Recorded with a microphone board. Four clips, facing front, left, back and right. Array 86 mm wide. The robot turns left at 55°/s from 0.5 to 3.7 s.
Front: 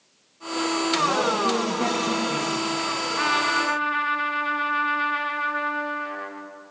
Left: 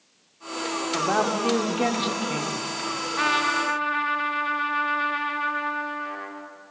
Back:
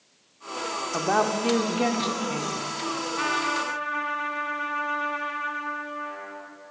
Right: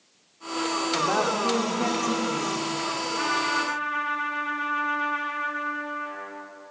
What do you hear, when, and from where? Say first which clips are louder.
0.9 s a woman speaking: left 2 dB, back 1 dB; 170° left, 1.0 m; by 2.7 s 75° left, 1.0 m
3.2 s a trumpet: left 3 dB, front 4 dB; 70° left, 1.1 m; by 6.5 s 40° left, 1.1 m